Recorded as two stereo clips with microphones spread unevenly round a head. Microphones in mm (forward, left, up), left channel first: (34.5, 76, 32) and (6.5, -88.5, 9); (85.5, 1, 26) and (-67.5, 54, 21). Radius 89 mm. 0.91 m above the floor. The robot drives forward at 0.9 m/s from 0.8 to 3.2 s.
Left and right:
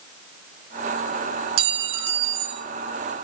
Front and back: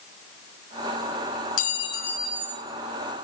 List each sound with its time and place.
1.6 s a clink: 65° right, 0.8 m; by 2.6 s 130° right, 1.0 m